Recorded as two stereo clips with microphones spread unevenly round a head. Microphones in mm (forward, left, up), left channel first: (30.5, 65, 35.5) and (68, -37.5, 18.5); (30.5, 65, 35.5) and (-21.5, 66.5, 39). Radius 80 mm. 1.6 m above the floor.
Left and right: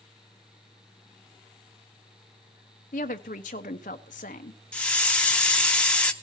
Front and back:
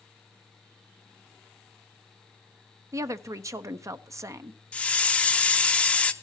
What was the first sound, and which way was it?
A woman speaking, 150° left.